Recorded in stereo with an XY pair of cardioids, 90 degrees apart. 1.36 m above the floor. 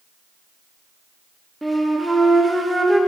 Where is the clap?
I don't hear a clap.